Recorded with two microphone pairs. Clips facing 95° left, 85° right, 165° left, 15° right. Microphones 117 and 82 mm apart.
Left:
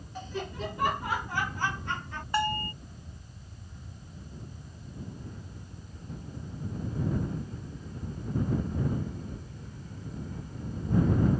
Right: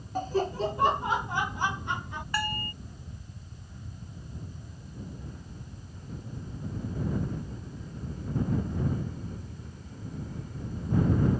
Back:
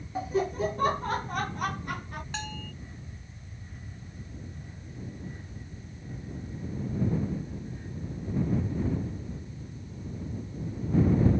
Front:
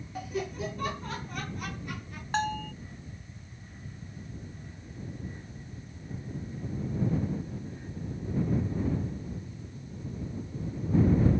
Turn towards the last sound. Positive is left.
turn(degrees=30)